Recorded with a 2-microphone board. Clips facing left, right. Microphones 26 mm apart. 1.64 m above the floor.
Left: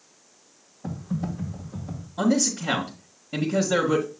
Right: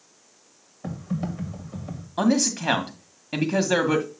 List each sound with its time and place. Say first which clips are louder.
0.8 s typing on a keyboard: right 1 dB; 60° right (ahead or behind), 2 m
2.2 s a man speaking: right 1 dB; 85° right, 1.7 m